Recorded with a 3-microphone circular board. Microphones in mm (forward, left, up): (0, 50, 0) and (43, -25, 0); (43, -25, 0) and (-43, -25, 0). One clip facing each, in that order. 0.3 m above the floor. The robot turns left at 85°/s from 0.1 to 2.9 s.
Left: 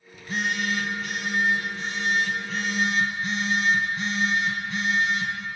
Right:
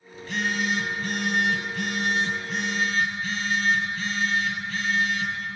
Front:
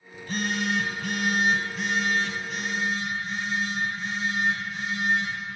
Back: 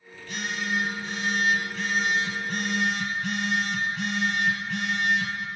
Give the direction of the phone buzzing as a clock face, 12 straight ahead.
10 o'clock.